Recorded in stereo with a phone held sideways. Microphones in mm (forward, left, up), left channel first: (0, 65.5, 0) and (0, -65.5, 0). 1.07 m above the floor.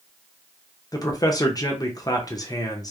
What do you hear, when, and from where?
0.9 s a man speaking: 30° left (ahead or behind), 0.6 m